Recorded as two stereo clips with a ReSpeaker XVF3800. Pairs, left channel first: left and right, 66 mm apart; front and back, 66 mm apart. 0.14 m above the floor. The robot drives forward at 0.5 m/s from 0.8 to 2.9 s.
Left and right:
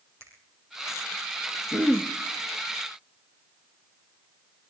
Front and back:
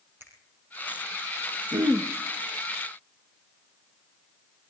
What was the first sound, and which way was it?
A finger snap, 125° right.